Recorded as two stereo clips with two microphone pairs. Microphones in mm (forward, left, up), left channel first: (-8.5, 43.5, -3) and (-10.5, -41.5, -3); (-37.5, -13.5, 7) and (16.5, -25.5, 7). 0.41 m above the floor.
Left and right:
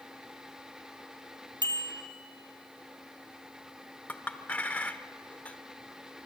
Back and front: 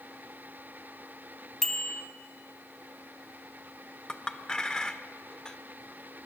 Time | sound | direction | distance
1.6 | a bicycle bell | 105° right | 2 m
4.1 | a clink | 120° left | 0.7 m